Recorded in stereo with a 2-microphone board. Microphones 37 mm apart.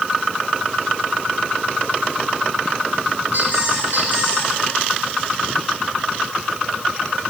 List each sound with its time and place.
3.3 s a squeak: 60° right (ahead or behind), 2 m